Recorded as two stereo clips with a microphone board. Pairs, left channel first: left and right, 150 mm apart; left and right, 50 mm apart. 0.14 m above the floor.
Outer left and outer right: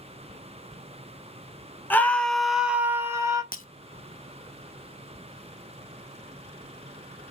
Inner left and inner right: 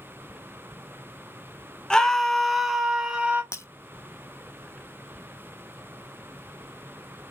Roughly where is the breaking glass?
Left.